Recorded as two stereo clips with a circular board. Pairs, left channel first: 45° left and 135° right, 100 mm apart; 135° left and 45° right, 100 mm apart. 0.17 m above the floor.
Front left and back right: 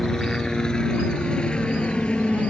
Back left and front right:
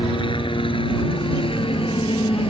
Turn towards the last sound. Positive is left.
turn(degrees=125)